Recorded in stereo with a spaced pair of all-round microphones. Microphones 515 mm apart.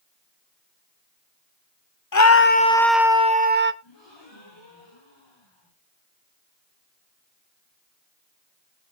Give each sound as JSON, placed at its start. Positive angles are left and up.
{"t": 2.1, "sound": "a scream", "side_deg": 40, "distance_m": 0.7}
{"t": 3.8, "sound": "a gasp", "side_deg": 55, "distance_m": 9.5}